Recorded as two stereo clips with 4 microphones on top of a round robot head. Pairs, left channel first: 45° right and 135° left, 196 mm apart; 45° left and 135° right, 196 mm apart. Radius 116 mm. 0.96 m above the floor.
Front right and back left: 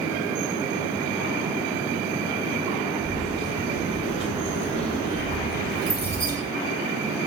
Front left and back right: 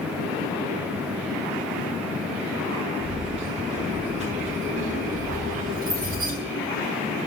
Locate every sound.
3.0 s keys jangling: 70° right, 6.5 m; by 6.3 s 90° right, 5 m